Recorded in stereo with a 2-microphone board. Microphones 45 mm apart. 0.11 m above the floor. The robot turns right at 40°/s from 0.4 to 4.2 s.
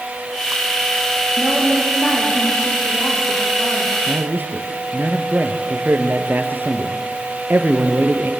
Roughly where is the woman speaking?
Ahead.